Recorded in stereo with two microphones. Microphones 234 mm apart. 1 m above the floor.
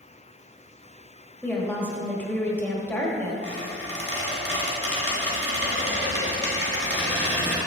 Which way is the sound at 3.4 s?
70° right (ahead or behind).